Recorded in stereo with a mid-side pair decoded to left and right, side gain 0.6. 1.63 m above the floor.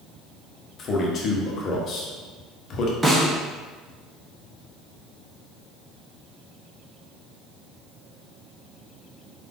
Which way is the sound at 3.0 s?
10° right.